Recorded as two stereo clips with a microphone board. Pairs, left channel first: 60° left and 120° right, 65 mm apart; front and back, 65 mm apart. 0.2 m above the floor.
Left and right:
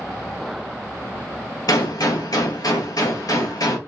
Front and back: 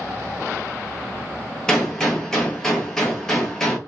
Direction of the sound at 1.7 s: 80° left.